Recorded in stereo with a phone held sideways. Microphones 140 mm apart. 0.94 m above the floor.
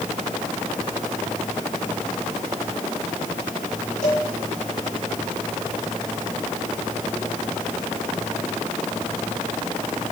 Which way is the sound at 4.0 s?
70° left (ahead or behind).